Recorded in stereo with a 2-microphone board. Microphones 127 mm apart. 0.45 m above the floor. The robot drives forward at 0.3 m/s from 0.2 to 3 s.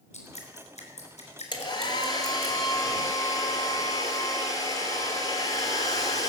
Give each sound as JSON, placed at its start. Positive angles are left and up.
{"t": 0.1, "sound": "dripping", "side_deg": 70, "distance_m": 4.0}
{"t": 1.5, "sound": "a hair dryer", "side_deg": 40, "distance_m": 2.0}